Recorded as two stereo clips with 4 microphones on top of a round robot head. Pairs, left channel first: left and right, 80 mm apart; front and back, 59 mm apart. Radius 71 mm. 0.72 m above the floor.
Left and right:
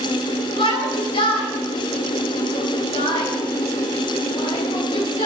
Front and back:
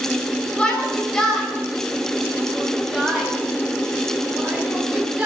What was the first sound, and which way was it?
A shout, 75° left.